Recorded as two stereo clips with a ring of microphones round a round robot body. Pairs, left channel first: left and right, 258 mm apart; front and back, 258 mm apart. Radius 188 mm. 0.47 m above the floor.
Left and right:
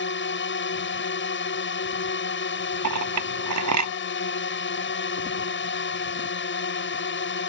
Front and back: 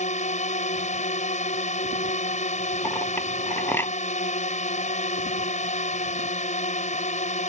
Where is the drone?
55° left.